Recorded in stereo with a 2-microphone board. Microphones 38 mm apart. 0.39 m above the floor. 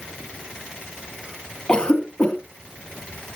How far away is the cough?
About 3 m.